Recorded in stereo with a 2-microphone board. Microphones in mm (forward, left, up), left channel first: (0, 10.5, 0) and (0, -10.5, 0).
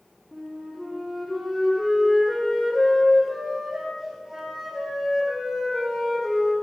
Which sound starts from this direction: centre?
A flute, at 0.3 s.